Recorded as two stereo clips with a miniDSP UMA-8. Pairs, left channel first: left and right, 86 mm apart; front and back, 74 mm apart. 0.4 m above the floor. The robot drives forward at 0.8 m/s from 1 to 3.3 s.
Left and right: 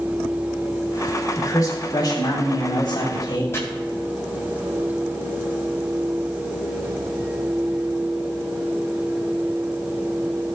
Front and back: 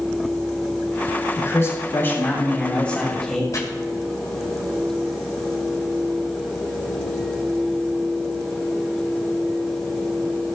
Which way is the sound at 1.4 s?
45° left.